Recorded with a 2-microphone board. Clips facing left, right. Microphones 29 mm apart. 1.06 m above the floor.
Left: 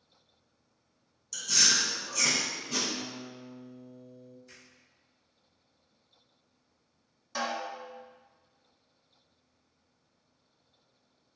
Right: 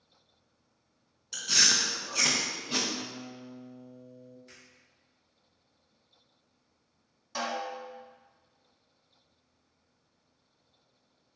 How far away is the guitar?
About 0.6 m.